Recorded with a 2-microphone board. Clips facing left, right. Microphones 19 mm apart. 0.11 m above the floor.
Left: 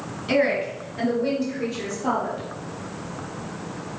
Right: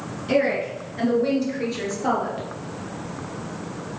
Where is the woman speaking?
15° left (ahead or behind), 1.7 m; by 2.4 s 35° right (ahead or behind), 2.5 m.